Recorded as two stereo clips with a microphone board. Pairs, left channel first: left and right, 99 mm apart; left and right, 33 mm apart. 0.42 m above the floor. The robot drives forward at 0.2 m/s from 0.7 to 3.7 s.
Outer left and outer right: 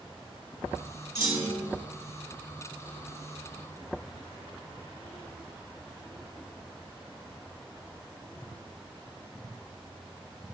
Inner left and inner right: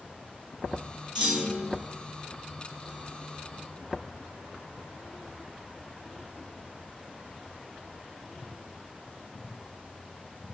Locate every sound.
1.1 s a clunk: 30° right (ahead or behind), 2 m